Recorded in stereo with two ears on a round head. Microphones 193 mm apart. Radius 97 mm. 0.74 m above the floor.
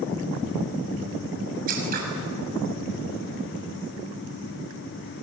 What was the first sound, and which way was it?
Scissors, 40° right (ahead or behind).